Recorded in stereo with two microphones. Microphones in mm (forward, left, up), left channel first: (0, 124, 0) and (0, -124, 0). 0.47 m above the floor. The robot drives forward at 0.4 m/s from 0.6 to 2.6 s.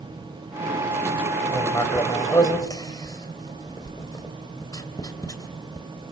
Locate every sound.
1.5 s writing: 15° left (ahead or behind), 3 m